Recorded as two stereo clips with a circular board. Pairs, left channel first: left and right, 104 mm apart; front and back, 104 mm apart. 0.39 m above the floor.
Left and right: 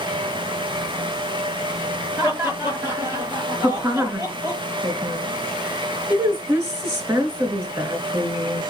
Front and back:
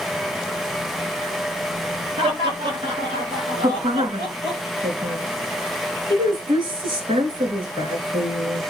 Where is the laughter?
155° right, 8 m; by 4.6 s 145° right, 7.5 m.